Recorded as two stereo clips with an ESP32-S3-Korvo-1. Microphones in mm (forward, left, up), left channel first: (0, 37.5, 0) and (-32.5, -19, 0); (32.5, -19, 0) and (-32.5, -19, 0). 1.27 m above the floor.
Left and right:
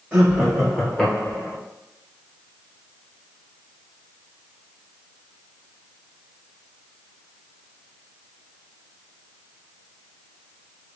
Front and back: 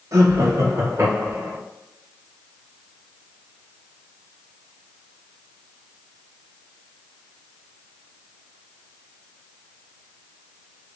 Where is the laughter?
170° left, 0.9 m; by 1.6 s 125° left, 1.4 m.